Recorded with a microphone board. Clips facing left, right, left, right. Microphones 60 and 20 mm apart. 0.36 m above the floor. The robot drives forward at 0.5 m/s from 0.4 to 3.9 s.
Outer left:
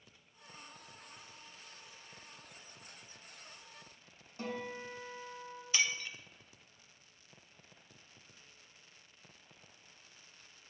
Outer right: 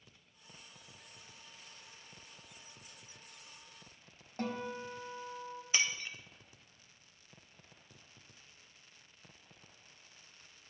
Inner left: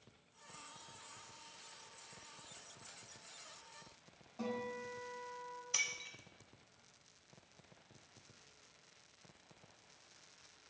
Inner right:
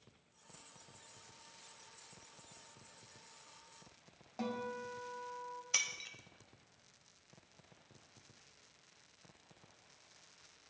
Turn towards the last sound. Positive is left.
turn(degrees=-30)  # may be behind; listen again after turning